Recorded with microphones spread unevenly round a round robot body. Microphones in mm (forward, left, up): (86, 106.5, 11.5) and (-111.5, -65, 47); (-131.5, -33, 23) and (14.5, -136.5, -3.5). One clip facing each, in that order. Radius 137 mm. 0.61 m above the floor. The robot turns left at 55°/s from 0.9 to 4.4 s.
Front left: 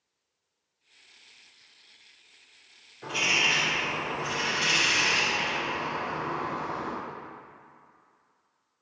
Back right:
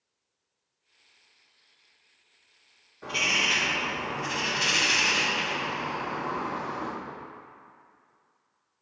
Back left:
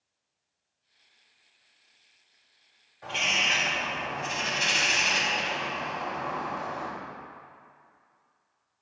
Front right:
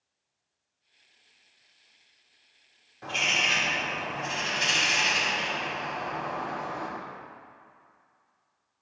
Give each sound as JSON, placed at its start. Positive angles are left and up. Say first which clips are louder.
{"t": 3.0, "sound": "a bird", "louder": "even, front right 1 dB", "azimuth_deg": -50, "distance_m": 1.6}